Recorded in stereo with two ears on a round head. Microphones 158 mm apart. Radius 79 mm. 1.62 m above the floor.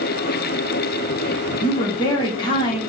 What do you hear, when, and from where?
1.6 s a woman speaking: 25° left (ahead or behind), 1.1 m